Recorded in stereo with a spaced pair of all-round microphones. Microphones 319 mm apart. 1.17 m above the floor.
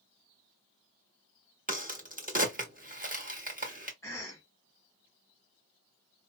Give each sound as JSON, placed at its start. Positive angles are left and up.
{"t": 1.7, "sound": "a crack", "side_deg": -25, "distance_m": 1.2}
{"t": 4.0, "sound": "a cough", "side_deg": 10, "distance_m": 1.5}